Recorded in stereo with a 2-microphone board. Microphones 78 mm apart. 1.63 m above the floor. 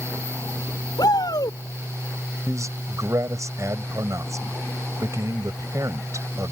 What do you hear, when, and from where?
1.0 s a shout: 65° left (ahead or behind)
2.5 s a man speaking: 45° right (ahead or behind)